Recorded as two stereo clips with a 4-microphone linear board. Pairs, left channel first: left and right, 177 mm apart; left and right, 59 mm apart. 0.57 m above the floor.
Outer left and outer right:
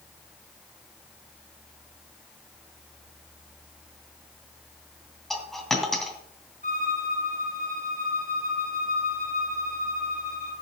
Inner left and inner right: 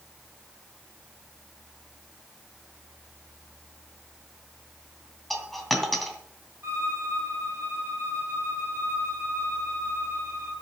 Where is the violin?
50° right (ahead or behind), 5 m.